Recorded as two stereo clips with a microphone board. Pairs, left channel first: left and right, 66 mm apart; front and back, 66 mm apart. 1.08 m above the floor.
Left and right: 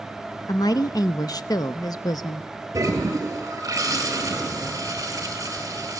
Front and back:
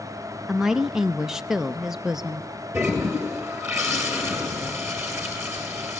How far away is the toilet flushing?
About 4 m.